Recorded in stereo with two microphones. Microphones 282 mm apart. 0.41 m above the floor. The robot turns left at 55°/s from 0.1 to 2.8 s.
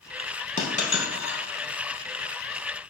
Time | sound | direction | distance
0.6 | a dropped coin | 25° left (ahead or behind) | 0.8 m